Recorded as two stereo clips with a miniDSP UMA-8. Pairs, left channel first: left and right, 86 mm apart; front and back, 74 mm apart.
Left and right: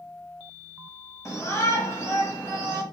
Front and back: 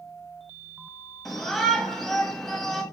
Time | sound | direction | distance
1.2 | a shout | 80° left | 1.1 m